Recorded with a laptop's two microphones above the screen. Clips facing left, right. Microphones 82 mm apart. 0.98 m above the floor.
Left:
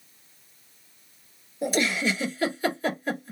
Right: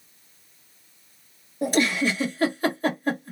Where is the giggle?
50° right (ahead or behind), 1.6 m.